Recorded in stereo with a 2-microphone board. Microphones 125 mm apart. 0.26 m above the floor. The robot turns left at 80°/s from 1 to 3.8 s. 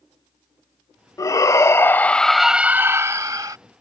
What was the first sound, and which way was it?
A shout, 30° left (ahead or behind).